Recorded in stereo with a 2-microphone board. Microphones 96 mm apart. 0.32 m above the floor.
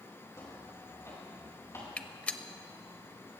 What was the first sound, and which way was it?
Footsteps, 30° left (ahead or behind).